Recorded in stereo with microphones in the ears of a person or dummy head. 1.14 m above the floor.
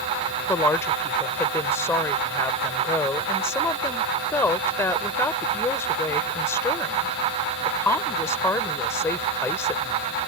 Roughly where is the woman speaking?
Centre.